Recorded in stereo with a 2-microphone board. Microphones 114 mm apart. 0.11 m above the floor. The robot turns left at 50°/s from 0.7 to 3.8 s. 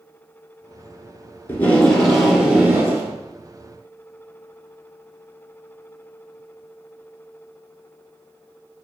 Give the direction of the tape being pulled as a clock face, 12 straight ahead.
11 o'clock.